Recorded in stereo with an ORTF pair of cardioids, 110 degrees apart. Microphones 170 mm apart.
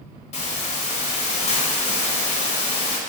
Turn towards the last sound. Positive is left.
turn(degrees=40)